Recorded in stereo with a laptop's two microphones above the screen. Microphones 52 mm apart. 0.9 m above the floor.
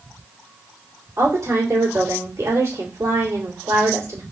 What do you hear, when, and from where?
1.2 s a woman speaking: 65° right (ahead or behind), 2.5 m